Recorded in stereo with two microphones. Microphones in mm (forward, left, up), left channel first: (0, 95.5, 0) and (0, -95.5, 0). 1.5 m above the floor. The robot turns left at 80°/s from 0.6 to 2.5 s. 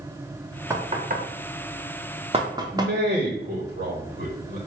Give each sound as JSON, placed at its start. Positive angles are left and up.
{"t": 0.7, "sound": "knocking", "side_deg": -15, "distance_m": 0.7}
{"t": 2.7, "sound": "a man speaking", "side_deg": -50, "distance_m": 0.8}